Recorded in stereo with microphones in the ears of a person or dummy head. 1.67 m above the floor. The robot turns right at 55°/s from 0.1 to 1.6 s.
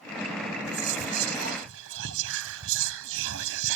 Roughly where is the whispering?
Behind right.